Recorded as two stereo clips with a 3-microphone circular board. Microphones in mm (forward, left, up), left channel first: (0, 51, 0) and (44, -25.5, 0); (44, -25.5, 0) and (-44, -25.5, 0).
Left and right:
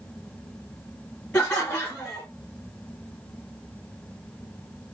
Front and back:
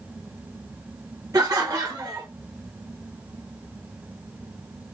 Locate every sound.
1.3 s laughter: 175° right, 1.3 m